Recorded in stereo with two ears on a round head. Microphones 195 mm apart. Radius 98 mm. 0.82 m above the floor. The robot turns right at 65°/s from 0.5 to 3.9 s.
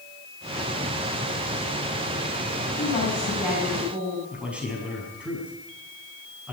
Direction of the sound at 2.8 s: 135° left.